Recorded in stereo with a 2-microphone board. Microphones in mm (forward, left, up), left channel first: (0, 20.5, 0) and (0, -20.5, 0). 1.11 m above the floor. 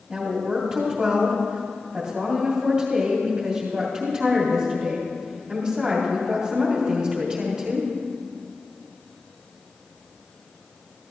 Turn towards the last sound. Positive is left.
turn(degrees=-25)  # may be behind; listen again after turning